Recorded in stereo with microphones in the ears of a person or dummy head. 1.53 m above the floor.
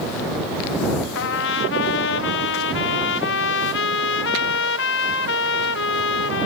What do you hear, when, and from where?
1.1 s a trumpet: 60° left (ahead or behind)